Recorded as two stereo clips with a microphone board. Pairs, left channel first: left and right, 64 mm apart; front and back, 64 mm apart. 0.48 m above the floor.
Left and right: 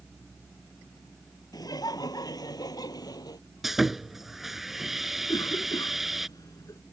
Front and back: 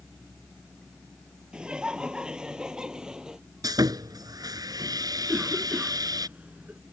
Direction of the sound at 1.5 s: 105° left.